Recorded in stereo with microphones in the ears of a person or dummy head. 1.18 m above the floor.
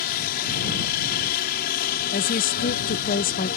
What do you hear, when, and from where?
0.0 s a helicopter: 50° left (ahead or behind)
2.1 s a woman speaking: 40° left (ahead or behind)